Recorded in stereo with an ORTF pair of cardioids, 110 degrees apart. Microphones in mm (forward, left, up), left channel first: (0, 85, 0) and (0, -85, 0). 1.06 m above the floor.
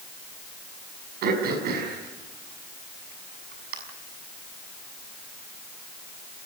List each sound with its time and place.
1.2 s throat clearing: 70° right, 6.5 m